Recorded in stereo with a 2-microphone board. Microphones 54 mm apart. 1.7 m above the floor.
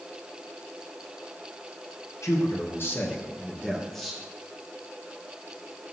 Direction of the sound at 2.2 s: 65° left (ahead or behind).